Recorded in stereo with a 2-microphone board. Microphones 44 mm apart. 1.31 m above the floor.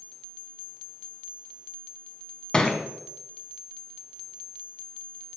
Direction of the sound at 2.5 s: 15° left (ahead or behind).